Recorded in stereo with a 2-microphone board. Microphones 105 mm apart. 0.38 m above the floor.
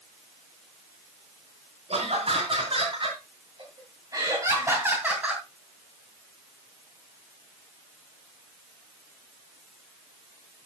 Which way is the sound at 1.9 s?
65° right (ahead or behind).